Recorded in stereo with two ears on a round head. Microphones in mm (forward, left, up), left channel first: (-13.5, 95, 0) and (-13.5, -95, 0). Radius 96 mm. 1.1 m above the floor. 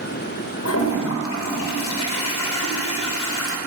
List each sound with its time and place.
0.7 s a toilet flushing: 75° left (ahead or behind), 1.1 m